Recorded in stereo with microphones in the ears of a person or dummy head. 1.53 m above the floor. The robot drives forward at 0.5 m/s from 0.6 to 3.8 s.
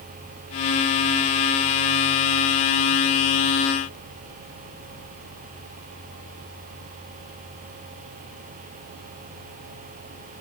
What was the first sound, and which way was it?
Only background noise.